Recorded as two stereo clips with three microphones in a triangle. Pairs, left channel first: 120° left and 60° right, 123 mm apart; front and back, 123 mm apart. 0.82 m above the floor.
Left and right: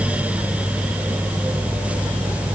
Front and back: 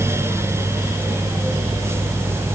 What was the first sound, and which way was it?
Only background noise.